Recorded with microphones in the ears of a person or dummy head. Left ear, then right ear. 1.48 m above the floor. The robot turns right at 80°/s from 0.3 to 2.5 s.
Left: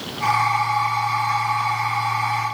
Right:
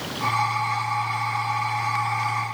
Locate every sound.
Only background noise.